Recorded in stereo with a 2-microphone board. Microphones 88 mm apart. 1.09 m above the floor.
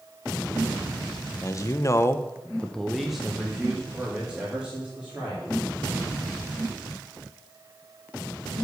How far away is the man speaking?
About 0.8 m.